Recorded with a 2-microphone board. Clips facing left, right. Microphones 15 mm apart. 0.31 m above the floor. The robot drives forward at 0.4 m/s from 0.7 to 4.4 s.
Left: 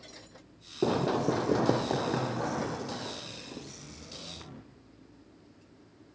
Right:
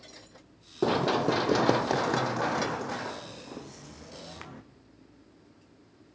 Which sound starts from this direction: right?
Running footsteps, at 0.8 s.